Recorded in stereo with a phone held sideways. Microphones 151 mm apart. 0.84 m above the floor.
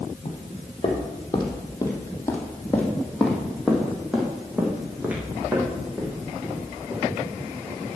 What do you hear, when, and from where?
0.2 s footsteps: 45° left (ahead or behind), 1.8 m; by 7.2 s 20° right (ahead or behind), 4 m